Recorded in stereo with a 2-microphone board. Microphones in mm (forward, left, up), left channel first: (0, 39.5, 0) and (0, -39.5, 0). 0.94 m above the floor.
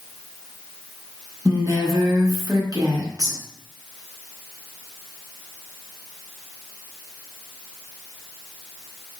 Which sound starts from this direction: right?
A woman speaking, at 1.4 s.